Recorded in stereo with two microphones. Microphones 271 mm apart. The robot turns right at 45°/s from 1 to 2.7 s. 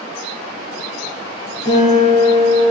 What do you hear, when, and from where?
1.6 s a guitar: 110° right, 1.9 m; by 2.6 s 65° right, 1.9 m